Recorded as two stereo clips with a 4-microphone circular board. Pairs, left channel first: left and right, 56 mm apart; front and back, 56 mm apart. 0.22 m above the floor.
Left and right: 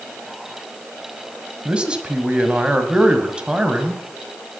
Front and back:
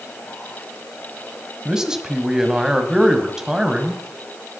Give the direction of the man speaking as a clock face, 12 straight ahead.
4 o'clock.